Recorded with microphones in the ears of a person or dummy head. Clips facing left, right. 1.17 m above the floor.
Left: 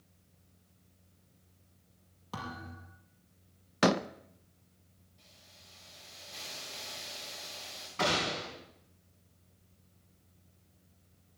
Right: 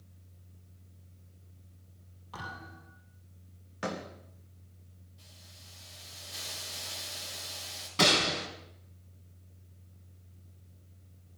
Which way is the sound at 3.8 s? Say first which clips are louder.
Left 10 dB; 80° left.